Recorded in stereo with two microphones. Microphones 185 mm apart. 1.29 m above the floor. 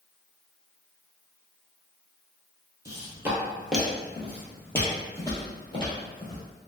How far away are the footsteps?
About 1.3 m.